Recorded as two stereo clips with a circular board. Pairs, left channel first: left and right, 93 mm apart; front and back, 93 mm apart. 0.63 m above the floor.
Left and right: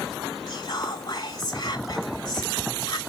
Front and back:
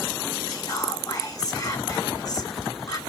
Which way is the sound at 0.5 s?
50° left.